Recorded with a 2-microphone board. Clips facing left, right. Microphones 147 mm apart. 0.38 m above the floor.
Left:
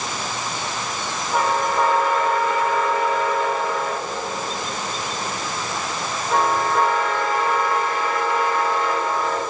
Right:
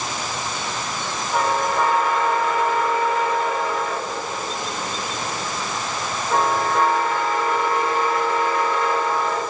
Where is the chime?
No chime in this recording.